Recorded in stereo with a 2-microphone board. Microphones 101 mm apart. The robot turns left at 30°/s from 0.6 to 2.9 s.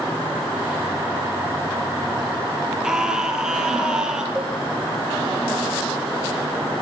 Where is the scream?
5° right (ahead or behind), 6.5 m; by 4.2 s 10° right (ahead or behind), 6.5 m.